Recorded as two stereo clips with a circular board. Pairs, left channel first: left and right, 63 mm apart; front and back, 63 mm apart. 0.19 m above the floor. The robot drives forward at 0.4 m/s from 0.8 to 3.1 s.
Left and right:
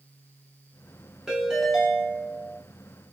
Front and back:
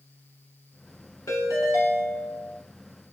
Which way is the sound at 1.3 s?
10° right.